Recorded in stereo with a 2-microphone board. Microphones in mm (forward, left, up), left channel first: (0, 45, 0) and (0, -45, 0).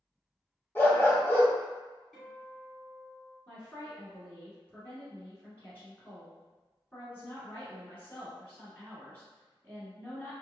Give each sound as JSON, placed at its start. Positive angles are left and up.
{"t": 0.8, "sound": "a dog barking", "side_deg": 25, "distance_m": 1.0}
{"t": 2.1, "sound": "a guitar", "side_deg": 5, "distance_m": 1.8}
{"t": 3.5, "sound": "a woman speaking", "side_deg": 15, "distance_m": 1.5}